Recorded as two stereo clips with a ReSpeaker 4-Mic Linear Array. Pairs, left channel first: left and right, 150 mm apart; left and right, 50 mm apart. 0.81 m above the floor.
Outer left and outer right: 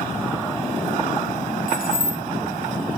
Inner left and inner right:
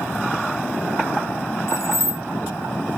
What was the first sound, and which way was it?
Keys jangling, 65° left (ahead or behind).